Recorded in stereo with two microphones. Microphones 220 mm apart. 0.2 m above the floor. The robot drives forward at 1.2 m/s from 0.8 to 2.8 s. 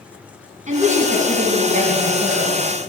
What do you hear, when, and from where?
0.7 s a woman speaking: 35° right (ahead or behind), 2.0 m; by 2.6 s 30° right (ahead or behind), 2.5 m